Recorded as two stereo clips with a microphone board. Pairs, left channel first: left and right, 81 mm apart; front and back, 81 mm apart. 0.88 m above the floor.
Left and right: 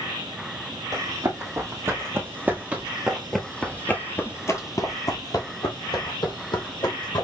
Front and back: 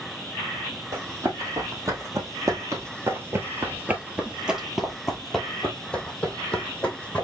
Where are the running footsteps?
135° right, 1.8 m; by 7.2 s 70° left, 2 m.